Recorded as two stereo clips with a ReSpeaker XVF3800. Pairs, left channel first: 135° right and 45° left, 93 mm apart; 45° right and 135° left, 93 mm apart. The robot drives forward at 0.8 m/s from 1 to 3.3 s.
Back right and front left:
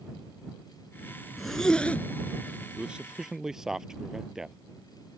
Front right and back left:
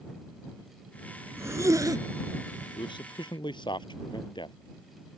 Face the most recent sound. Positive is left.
turn(degrees=-40)